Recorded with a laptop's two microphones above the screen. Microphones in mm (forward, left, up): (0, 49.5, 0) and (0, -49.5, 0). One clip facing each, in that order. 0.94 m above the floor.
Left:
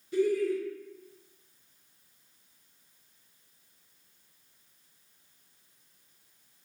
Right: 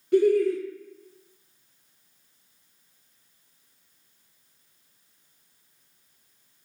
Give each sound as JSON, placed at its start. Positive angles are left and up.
{"t": 0.1, "sound": "laughter", "side_deg": -65, "distance_m": 0.6}